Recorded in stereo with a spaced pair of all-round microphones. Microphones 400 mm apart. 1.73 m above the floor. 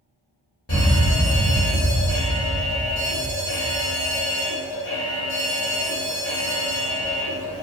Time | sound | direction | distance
0.7 | an alarm | 35° left (ahead or behind) | 1.0 m